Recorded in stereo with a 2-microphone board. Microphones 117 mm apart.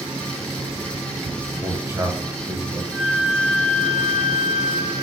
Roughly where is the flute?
Centre.